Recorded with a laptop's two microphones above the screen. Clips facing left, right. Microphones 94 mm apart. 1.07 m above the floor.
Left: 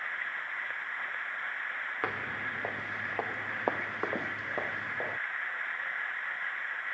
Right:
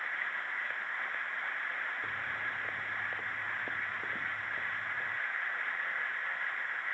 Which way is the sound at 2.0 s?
80° left.